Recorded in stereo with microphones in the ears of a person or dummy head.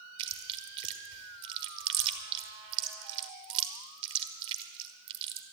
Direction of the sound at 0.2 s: 30° right (ahead or behind).